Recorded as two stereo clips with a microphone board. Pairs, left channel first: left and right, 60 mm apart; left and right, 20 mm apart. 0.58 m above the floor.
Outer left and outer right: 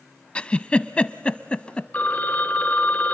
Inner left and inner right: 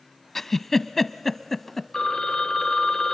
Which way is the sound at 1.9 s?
30° left (ahead or behind).